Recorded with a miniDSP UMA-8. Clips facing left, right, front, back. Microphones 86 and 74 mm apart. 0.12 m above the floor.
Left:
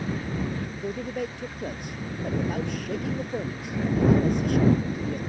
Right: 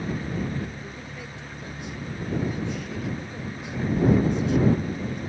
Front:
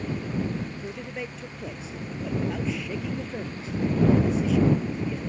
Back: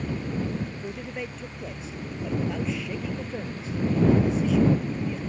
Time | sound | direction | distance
0.8 | a man speaking | 90° left | ?